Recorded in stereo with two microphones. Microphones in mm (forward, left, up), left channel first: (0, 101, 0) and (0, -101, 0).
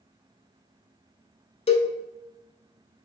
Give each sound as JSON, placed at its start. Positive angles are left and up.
{"t": 1.7, "sound": "a cowbell", "side_deg": 30, "distance_m": 0.5}